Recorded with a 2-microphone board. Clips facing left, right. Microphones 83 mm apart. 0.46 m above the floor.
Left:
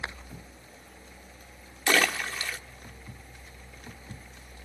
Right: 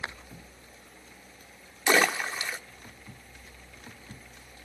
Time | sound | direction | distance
1.9 | a splash | 20° right (ahead or behind) | 0.7 m